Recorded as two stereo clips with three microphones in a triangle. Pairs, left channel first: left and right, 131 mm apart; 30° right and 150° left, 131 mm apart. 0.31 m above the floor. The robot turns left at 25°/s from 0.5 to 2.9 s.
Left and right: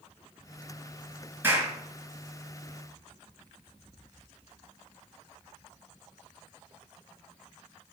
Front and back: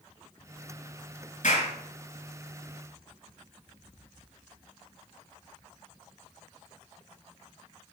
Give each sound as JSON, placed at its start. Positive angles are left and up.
{"t": 1.4, "sound": "a clap", "azimuth_deg": -15, "distance_m": 4.0}